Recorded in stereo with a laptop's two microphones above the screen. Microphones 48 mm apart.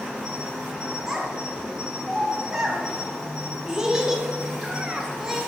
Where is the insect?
15° right (ahead or behind), 0.9 m.